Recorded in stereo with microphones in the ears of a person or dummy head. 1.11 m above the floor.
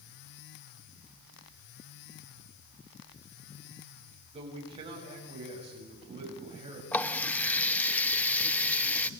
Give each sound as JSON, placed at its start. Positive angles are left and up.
{"t": 4.3, "sound": "a man speaking", "side_deg": -25, "distance_m": 6.0}
{"t": 6.9, "sound": "a running tap", "side_deg": 5, "distance_m": 0.8}